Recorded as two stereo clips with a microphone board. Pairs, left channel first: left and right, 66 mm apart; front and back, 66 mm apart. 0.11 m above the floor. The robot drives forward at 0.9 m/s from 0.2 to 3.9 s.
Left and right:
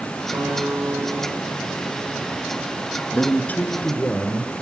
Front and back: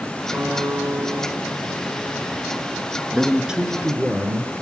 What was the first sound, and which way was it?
A guitar, 130° right.